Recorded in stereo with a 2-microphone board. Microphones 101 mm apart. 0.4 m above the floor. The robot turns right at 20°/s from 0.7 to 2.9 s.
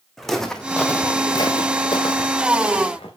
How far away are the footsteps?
About 1.7 m.